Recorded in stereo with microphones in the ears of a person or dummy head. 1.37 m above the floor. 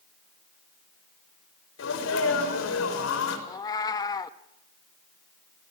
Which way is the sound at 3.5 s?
25° left (ahead or behind).